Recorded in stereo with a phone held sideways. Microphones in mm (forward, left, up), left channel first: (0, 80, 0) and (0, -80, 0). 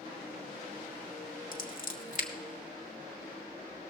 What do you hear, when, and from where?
1.5 s scissors: 55° left (ahead or behind), 1.2 m